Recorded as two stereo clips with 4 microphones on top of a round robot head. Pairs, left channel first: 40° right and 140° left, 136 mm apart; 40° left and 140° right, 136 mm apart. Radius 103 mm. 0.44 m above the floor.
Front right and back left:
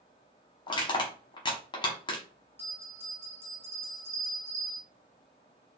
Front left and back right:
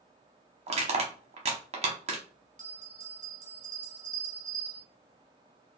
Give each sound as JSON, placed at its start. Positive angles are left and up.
{"t": 0.7, "sound": "crushing", "azimuth_deg": -95, "distance_m": 0.8}
{"t": 2.6, "sound": "a bell", "azimuth_deg": -145, "distance_m": 1.2}